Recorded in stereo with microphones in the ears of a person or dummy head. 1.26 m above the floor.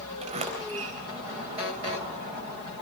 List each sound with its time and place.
0.2 s a sliding door: 35° right (ahead or behind), 3.5 m